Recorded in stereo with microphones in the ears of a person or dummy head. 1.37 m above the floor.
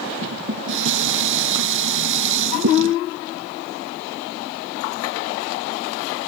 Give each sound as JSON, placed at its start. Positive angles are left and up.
{"t": 0.2, "sound": "dishes clattering", "side_deg": -65}